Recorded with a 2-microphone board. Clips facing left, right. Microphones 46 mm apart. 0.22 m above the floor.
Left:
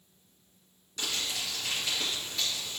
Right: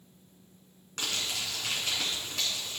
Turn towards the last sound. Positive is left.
turn(degrees=-60)  # may be behind; listen again after turning